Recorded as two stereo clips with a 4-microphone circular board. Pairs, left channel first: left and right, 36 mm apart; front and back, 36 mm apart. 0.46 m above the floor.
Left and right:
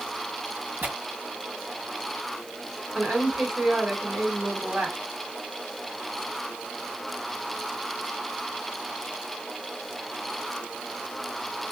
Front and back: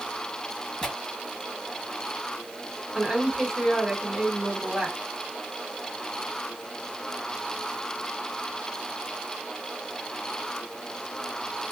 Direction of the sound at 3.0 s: 100° right.